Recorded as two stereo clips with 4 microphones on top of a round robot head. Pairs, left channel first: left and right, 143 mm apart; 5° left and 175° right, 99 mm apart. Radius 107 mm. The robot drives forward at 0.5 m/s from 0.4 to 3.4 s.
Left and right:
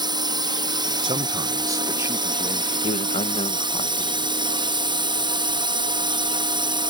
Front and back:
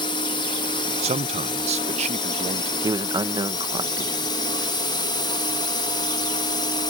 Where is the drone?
35° right.